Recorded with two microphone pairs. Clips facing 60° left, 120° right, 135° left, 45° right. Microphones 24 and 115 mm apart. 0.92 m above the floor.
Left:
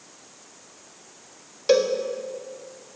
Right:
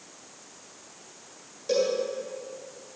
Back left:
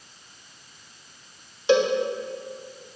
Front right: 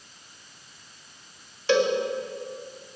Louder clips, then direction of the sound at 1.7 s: Left 6 dB, back left 2 dB; 65° left.